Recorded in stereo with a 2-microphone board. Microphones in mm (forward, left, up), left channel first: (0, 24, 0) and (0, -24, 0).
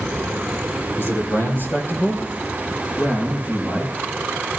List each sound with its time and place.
1.0 s a man speaking: 60° left (ahead or behind), 4 m; by 3.9 s 35° left (ahead or behind), 7.5 m